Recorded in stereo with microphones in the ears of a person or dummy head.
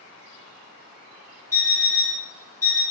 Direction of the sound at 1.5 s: 15° left (ahead or behind).